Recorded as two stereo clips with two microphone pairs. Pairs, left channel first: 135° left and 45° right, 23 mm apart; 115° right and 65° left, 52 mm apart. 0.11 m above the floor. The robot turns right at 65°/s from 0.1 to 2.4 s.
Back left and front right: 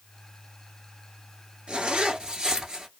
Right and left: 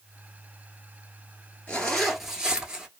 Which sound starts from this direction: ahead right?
A zipper, at 1.7 s.